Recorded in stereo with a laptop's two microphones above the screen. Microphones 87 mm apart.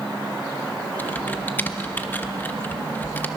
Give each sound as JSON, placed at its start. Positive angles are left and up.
{"t": 1.0, "sound": "typing on a keyboard", "side_deg": 20, "distance_m": 1.2}